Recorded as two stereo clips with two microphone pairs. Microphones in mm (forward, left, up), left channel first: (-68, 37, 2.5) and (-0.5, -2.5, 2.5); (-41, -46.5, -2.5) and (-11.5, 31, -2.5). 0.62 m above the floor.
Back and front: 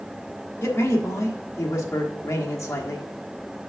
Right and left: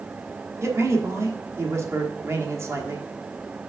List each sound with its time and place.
0.6 s a man speaking: 110° left, 1.3 m